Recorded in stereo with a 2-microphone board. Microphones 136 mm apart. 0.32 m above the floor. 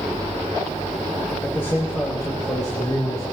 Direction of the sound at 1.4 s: 15° left (ahead or behind).